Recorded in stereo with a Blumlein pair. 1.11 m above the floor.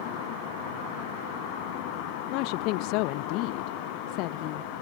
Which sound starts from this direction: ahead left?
A woman speaking, at 2.3 s.